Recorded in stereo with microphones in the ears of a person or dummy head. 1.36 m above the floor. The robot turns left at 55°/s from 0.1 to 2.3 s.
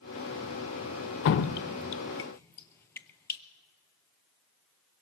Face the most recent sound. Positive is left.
turn(degrees=15)  # may be behind; listen again after turning